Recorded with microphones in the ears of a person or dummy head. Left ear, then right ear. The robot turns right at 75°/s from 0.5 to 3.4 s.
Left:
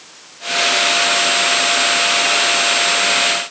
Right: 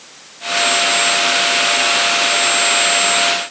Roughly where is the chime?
I don't hear a chime.